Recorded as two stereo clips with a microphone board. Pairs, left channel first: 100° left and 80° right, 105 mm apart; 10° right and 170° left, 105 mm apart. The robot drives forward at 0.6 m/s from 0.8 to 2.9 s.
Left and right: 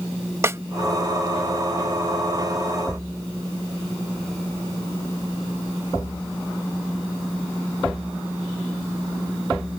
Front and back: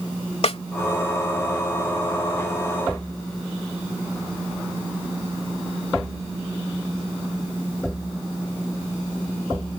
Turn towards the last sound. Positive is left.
turn(degrees=-105)